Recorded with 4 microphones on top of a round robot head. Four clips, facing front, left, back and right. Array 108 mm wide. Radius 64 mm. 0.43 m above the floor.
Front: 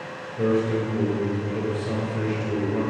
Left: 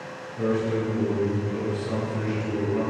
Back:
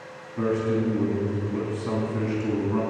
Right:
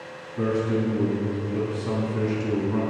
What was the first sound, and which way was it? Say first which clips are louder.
A man speaking: right 1 dB, front 2 dB; 150° right.